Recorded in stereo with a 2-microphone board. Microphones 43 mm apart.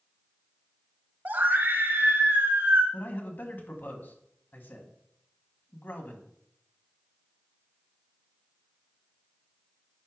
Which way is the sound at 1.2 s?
45° right (ahead or behind).